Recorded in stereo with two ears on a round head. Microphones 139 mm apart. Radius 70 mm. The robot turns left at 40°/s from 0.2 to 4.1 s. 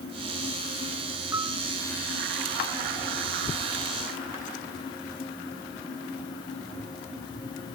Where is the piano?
20° right (ahead or behind); by 1.6 s 30° right (ahead or behind).